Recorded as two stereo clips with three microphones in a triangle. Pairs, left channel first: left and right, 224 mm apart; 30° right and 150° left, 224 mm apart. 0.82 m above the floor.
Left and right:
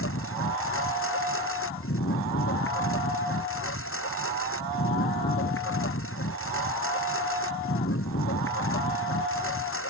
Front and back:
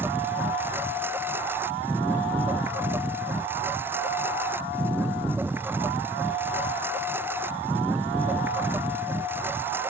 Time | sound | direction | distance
0.0 | a lawn mower | 70° left | ?